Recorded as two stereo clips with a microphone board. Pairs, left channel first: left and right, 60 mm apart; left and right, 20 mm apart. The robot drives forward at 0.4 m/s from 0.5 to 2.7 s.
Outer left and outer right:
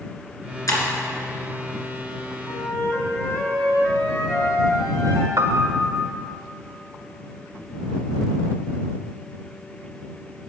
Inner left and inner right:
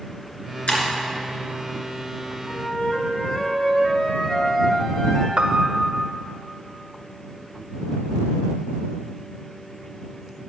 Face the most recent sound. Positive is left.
turn(degrees=-60)  # may be behind; listen again after turning